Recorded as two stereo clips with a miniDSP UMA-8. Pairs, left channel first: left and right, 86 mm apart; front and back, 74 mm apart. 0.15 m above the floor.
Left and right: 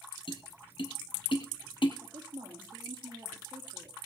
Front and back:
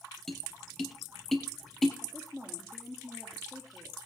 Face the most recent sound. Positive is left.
turn(degrees=-85)